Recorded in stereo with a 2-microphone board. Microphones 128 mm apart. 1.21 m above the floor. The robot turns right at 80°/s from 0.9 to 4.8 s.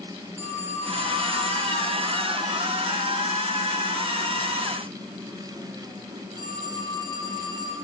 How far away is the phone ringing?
About 6.5 m.